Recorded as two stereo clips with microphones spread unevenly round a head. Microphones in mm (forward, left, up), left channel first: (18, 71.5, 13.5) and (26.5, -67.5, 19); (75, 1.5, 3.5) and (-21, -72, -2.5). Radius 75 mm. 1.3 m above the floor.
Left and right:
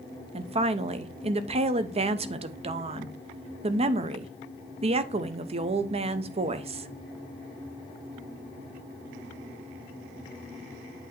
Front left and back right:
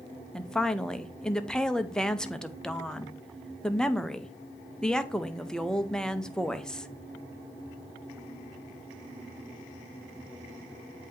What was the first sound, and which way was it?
A woman speaking, 45° right.